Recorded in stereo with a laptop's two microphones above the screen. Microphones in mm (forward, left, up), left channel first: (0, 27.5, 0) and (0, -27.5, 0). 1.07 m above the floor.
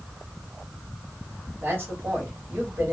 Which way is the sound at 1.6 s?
40° right (ahead or behind).